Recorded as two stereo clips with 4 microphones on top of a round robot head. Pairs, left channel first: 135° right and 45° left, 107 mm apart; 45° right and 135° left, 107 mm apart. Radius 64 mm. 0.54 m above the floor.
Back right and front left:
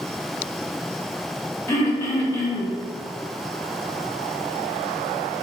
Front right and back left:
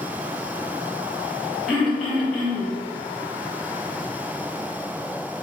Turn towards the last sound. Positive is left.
turn(degrees=-125)